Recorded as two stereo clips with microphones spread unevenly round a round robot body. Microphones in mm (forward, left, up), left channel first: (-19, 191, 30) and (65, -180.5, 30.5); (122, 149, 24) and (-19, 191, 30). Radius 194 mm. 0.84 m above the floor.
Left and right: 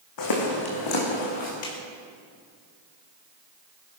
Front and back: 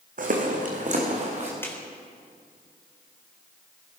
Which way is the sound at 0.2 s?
145° left.